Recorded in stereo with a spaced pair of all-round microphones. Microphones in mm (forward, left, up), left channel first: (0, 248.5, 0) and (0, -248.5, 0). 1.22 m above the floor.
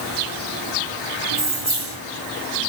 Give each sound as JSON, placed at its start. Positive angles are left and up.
{"t": 1.3, "sound": "keys jangling", "side_deg": -65, "distance_m": 2.0}